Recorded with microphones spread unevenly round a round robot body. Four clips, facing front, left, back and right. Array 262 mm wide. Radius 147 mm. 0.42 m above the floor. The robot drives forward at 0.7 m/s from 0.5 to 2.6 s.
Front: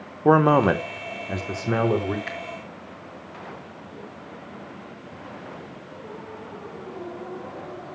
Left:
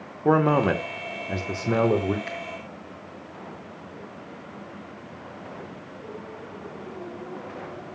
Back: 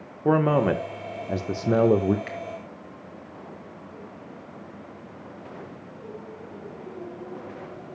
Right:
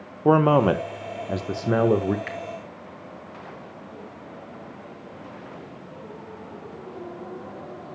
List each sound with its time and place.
0.2 s a man speaking: 20° right, 1.1 m; by 2.2 s 170° right, 1.3 m
2.3 s a finger snap: 145° right, 1.8 m; by 2.4 s 150° right, 1.8 m